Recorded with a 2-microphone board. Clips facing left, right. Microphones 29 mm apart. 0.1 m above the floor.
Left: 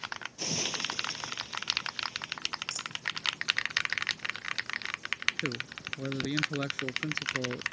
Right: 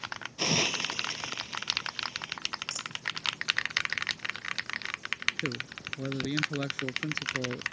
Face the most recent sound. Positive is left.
turn(degrees=20)  # may be behind; listen again after turning